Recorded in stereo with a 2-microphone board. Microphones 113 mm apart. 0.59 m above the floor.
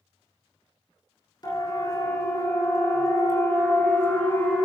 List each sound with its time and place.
1.4 s a siren: 35° left (ahead or behind), 6.5 m; by 4.7 s 20° left (ahead or behind), 7.5 m